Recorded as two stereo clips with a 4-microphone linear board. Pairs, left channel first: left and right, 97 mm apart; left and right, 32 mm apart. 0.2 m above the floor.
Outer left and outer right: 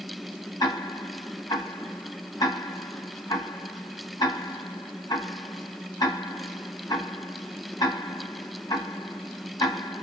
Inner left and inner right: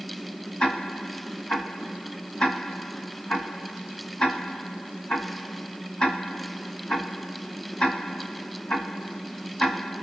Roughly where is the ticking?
Left.